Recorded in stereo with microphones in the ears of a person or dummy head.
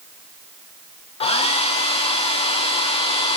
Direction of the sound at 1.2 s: 30° left (ahead or behind).